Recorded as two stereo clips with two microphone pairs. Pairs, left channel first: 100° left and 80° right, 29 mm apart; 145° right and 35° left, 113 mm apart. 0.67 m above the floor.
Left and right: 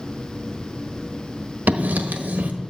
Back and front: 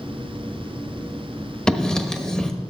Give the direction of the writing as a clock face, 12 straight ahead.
2 o'clock.